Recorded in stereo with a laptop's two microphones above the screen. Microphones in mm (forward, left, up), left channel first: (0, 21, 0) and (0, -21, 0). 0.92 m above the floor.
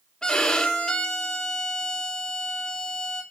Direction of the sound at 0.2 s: 20° left (ahead or behind).